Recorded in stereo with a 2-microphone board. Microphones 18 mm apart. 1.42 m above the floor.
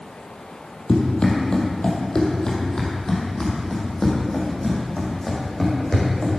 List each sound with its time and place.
0.9 s running footsteps: 45° left (ahead or behind), 2.5 m; by 6.4 s 15° left (ahead or behind), 4.5 m